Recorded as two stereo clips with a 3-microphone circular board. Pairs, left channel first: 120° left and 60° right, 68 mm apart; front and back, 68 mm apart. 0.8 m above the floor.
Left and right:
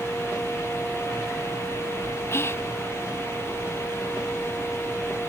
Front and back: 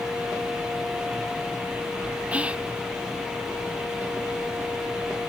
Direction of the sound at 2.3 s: 120° left.